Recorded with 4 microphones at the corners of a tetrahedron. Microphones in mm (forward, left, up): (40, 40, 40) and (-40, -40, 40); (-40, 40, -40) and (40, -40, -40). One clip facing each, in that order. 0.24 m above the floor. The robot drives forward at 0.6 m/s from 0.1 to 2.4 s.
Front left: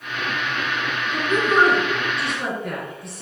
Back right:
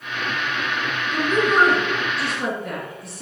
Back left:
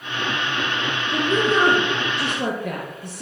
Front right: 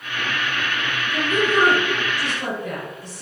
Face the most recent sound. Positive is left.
turn(degrees=140)